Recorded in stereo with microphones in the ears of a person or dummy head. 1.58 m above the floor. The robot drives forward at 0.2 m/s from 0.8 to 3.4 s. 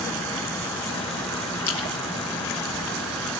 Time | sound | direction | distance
1.7 | a splash | 15° left (ahead or behind) | 0.7 m